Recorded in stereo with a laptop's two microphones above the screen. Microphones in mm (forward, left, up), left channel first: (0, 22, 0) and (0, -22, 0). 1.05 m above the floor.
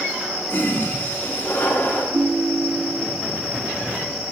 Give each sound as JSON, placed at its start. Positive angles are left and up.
{"t": 0.5, "sound": "a toilet flushing", "side_deg": 35, "distance_m": 3.5}
{"t": 2.1, "sound": "a ringtone", "side_deg": -75, "distance_m": 0.8}